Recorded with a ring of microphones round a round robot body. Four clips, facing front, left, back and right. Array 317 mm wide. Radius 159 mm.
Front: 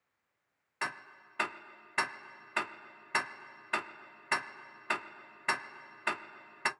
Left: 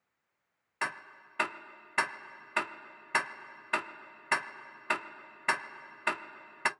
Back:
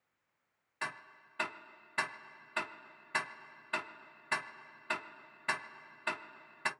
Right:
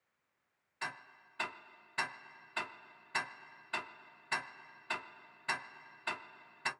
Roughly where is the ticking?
Left.